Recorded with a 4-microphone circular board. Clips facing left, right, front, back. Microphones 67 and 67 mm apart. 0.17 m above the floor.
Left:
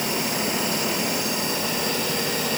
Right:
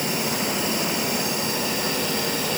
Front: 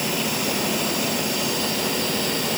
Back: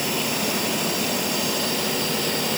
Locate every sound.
Only background noise.